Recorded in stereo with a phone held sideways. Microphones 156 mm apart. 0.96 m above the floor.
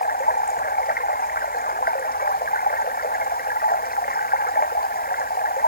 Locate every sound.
0.0 s running water: 75° left (ahead or behind)